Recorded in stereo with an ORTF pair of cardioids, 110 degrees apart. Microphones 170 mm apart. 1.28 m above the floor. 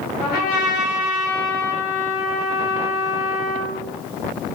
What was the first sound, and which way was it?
A trumpet, 65° left.